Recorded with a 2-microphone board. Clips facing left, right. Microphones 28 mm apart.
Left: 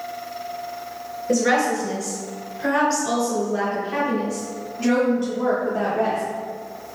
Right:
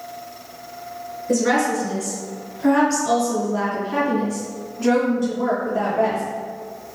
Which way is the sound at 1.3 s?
10° left (ahead or behind).